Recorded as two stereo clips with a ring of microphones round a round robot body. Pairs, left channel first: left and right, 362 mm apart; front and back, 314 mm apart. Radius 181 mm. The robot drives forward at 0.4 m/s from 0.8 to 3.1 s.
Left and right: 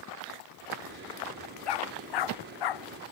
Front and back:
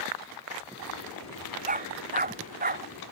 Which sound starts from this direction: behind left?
A dog barking, at 1.7 s.